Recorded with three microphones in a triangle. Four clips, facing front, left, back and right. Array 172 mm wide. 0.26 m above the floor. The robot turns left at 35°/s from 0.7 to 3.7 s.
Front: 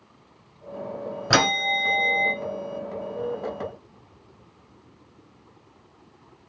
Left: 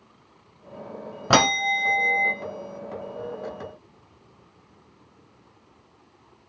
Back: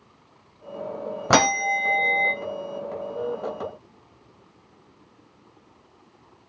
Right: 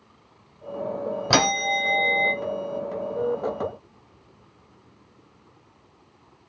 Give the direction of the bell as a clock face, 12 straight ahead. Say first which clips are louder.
Left 3 dB, back 3 dB; 7 o'clock.